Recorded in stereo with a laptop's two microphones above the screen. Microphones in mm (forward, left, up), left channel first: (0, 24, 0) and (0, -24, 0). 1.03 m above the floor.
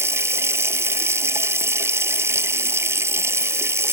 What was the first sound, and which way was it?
Running water, 65° right (ahead or behind).